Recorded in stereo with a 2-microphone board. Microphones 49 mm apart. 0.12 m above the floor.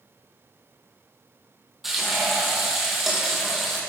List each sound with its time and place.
1.8 s frying: 5° right (ahead or behind), 3 m